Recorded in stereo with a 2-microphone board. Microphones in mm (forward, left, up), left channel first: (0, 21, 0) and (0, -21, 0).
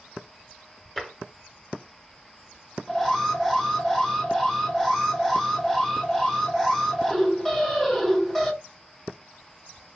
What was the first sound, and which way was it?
Tapping, 5° left (ahead or behind).